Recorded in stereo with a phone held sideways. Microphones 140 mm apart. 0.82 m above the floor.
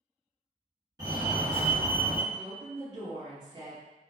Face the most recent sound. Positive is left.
turn(degrees=-65)  # may be behind; listen again after turning